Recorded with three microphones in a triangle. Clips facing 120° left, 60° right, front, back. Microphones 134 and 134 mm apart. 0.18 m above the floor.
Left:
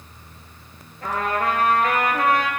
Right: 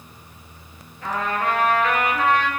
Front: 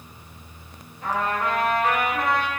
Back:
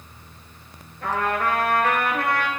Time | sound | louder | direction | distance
1.0 | a trumpet | left 1 dB, back 1 dB | 160° left | 0.6 m